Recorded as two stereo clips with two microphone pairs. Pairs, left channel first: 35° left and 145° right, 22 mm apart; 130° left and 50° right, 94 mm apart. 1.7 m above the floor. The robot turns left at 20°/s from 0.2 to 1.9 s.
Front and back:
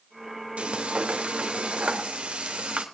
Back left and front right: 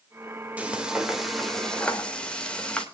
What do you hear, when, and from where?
0.6 s frying: 125° right, 2.5 m; by 2.9 s 150° right, 2.5 m